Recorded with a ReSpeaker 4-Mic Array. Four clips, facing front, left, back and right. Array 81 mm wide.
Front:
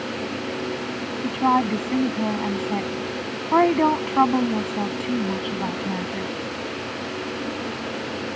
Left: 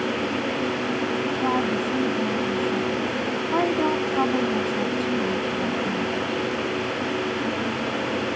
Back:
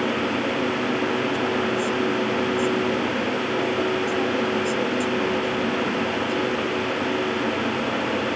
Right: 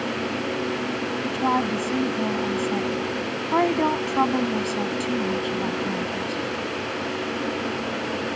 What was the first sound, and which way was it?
A woman speaking, 10° right.